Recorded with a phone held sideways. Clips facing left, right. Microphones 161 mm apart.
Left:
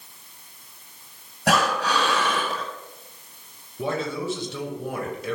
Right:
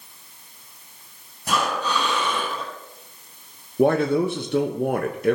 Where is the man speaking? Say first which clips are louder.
Right 9 dB; 55° right (ahead or behind), 1.3 m.